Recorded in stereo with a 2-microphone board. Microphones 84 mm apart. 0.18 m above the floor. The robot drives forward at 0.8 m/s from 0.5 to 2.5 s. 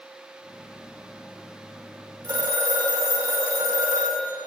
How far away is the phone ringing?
About 4.5 m.